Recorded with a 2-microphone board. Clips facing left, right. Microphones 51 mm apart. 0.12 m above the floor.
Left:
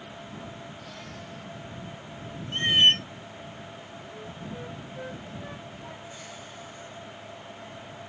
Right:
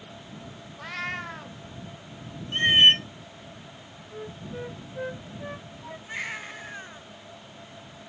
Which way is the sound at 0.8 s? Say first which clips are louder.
Right 9 dB; 85° right.